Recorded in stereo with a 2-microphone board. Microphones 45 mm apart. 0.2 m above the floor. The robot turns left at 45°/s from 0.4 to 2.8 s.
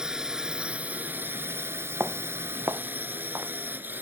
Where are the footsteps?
60° right (ahead or behind); by 3.5 s 80° right.